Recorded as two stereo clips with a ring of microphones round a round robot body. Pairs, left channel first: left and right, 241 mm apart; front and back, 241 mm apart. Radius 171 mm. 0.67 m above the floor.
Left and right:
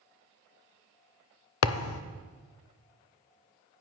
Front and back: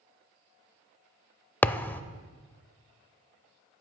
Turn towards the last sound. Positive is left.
turn(degrees=85)